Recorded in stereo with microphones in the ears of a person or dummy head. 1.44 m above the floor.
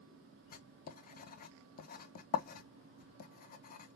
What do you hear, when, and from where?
0.5 s writing: 50° left (ahead or behind), 0.6 m